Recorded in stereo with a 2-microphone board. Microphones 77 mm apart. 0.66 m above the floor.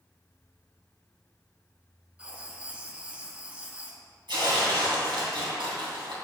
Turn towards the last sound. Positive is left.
turn(degrees=-85)